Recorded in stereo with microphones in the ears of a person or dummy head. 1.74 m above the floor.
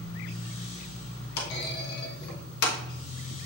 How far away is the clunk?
About 1.0 m.